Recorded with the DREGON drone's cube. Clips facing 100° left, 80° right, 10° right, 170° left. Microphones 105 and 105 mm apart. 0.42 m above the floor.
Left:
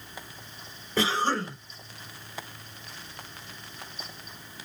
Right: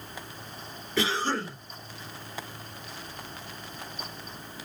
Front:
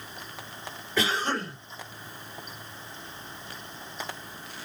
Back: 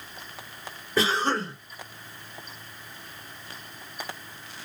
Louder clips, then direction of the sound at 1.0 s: Left 2 dB, back 3 dB; 130° left.